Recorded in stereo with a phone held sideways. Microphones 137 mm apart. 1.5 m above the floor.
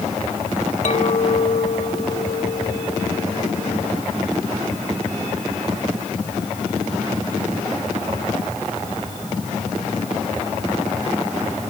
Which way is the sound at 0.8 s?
55° left (ahead or behind).